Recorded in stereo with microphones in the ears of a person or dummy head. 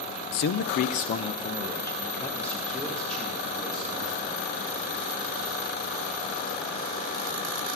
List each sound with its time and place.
0.3 s a man speaking: 55° left (ahead or behind), 0.6 m; by 4.4 s 5° left (ahead or behind), 2.5 m